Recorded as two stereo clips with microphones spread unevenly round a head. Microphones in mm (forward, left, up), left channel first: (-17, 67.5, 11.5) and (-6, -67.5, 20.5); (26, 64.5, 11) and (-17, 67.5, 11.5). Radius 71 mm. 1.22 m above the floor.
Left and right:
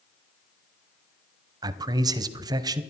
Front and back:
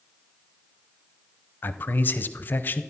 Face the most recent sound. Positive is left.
turn(degrees=-25)